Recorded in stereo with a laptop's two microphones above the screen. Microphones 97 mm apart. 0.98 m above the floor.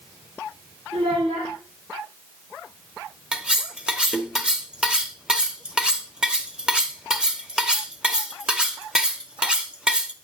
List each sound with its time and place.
0.9 s a child speaking: 75° right (ahead or behind), 2.5 m
3.3 s cutlery clinking: 10° right (ahead or behind), 0.8 m